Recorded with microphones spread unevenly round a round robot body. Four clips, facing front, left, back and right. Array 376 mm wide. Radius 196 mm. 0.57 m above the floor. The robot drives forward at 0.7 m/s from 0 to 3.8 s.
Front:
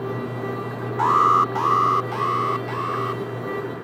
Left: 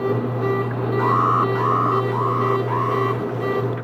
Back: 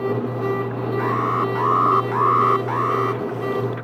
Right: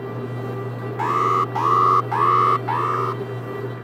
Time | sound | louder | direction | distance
1.0 | an alarm | left 1 dB, front 6 dB | 70° right | ?